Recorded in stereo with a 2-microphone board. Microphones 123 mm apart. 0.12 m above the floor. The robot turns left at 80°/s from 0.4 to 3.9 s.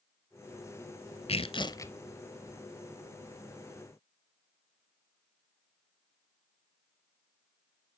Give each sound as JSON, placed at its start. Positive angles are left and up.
{"t": 1.3, "sound": "tearing paper", "azimuth_deg": 75, "distance_m": 0.8}